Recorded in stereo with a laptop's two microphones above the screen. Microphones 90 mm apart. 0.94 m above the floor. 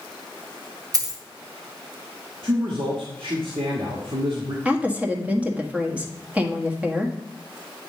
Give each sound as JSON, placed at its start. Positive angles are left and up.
{"t": 0.9, "sound": "a dropped coin", "side_deg": -40, "distance_m": 1.4}
{"t": 2.4, "sound": "a man speaking", "side_deg": -65, "distance_m": 1.2}
{"t": 4.7, "sound": "a woman speaking", "side_deg": -15, "distance_m": 1.5}